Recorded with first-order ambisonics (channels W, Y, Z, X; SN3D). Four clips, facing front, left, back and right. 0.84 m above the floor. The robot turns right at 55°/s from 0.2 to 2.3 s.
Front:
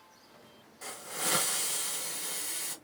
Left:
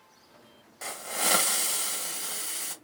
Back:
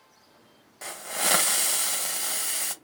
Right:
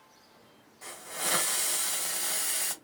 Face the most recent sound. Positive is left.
turn(degrees=-150)